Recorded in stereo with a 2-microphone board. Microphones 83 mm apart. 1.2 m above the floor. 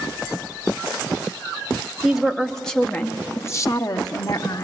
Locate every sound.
2.0 s a woman speaking: 5° right (ahead or behind), 1.3 m; by 4.6 s 60° left (ahead or behind), 1.1 m